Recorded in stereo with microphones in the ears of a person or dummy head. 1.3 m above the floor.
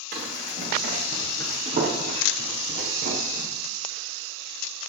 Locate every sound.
0.1 s running footsteps: 50° right (ahead or behind), 5.5 m; by 3.5 s 55° right (ahead or behind), 3.5 m